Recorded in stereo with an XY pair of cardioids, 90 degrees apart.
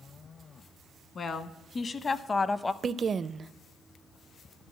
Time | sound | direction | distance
1.1 | a woman speaking | 55° left | 1.3 m
2.8 | a woman speaking | 45° right | 0.5 m